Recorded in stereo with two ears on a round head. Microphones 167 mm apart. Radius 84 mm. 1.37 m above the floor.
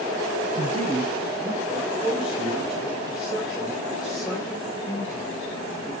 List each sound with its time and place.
0.6 s a man speaking: 30° right (ahead or behind), 0.5 m; by 5.9 s centre (ahead or behind), 4 m